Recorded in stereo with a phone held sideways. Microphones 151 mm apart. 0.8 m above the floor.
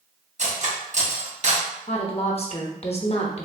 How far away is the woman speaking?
About 0.8 m.